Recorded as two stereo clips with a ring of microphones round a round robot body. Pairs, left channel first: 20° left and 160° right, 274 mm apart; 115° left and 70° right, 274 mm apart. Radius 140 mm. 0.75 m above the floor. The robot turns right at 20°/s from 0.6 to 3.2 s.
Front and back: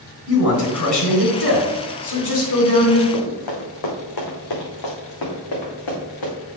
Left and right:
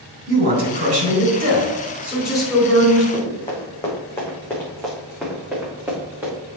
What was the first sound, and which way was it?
A man speaking, 10° right.